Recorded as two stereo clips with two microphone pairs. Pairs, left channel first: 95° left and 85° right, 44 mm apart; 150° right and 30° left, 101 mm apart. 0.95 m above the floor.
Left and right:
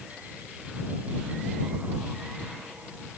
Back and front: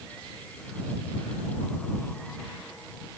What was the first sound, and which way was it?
Only background noise.